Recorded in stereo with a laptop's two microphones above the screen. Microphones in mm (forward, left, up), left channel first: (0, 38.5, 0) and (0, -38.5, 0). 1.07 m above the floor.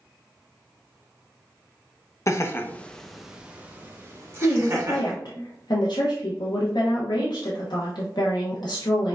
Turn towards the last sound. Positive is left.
turn(degrees=70)  # may be behind; listen again after turning